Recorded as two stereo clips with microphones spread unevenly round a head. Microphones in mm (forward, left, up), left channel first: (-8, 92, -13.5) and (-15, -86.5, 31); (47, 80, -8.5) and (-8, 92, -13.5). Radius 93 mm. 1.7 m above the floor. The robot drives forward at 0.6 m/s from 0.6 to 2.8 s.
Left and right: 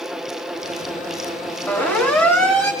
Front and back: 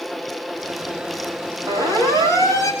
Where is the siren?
170° left, 8.5 m; by 2.7 s 175° left, 9 m.